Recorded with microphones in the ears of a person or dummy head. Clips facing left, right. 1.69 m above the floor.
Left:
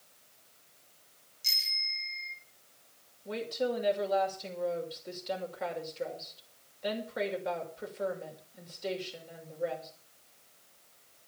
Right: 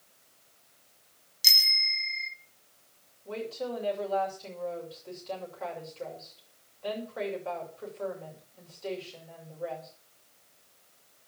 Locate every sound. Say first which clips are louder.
1.4 s a bicycle bell: right 8 dB; 80° right, 4.5 m
3.2 s a woman speaking: left 2 dB; 20° left (ahead or behind), 6 m